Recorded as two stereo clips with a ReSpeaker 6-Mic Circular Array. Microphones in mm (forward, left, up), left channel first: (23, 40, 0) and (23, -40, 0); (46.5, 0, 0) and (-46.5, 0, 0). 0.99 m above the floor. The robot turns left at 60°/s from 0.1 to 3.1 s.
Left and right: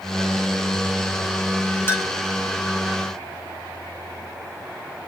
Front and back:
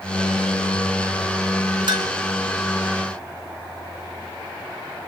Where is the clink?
150° left, 0.7 m; by 2.1 s 135° left, 0.7 m.